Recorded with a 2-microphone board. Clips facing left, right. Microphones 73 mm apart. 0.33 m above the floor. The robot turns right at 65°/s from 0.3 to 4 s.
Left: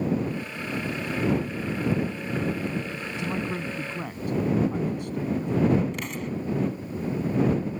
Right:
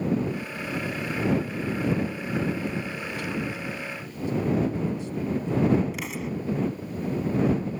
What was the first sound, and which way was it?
A man speaking, 20° left (ahead or behind).